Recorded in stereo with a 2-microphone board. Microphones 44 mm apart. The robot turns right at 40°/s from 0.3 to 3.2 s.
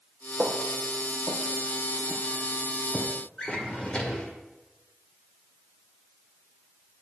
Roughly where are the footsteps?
Right.